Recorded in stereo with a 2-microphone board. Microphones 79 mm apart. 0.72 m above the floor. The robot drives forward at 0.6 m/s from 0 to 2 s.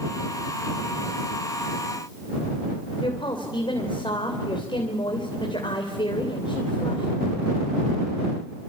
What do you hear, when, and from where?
3.0 s a woman speaking: 75° left (ahead or behind), 3.5 m